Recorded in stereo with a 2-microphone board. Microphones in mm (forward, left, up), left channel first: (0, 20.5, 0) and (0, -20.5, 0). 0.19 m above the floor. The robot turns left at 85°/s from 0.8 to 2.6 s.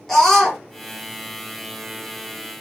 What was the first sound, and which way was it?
A scream, 5° left (ahead or behind).